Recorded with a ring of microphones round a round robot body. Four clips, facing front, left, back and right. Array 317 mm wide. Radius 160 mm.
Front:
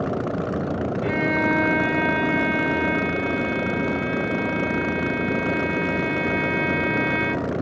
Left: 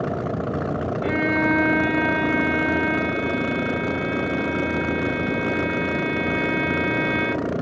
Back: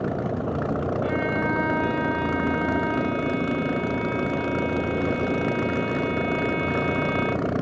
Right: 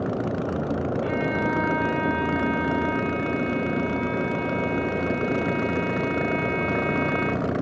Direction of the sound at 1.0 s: 45° left.